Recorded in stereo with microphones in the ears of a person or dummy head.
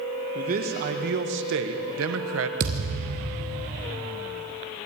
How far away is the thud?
About 2.5 m.